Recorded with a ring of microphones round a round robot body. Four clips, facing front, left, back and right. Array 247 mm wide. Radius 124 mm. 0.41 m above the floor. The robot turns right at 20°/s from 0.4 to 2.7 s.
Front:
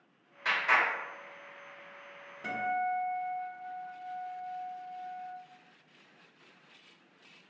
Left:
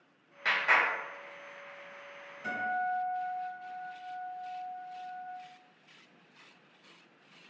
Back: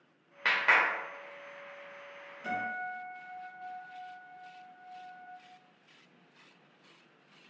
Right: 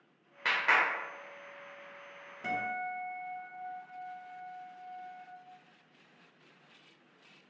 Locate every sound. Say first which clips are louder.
0.5 s a clap: left 1 dB, back 1 dB; 160° right, 1.5 m; by 0.8 s 155° right, 1.5 m
2.4 s a guitar: left 3 dB, front 4 dB; 55° right, 1.3 m; by 5.2 s 50° right, 1.3 m